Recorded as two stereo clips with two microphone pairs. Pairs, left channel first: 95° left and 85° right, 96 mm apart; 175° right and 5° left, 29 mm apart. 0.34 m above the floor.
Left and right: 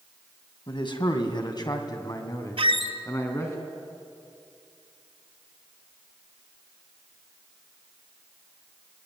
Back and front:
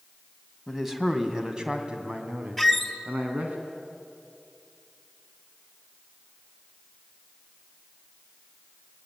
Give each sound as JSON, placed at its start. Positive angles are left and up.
{"t": 0.7, "sound": "a man speaking", "azimuth_deg": 90, "distance_m": 3.0}
{"t": 2.6, "sound": "a squeak", "azimuth_deg": -90, "distance_m": 1.2}